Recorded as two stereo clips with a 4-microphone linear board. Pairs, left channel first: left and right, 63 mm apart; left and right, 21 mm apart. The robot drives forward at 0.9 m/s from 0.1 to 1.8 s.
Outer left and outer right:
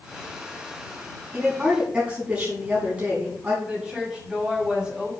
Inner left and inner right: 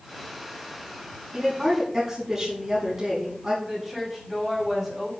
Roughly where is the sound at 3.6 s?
Centre.